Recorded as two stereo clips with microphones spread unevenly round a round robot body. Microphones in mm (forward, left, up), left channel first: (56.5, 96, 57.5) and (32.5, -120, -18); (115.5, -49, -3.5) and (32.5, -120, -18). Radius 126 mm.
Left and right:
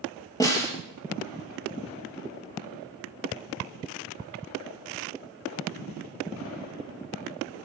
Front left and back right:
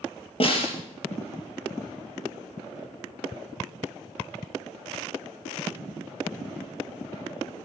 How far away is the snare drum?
About 5 m.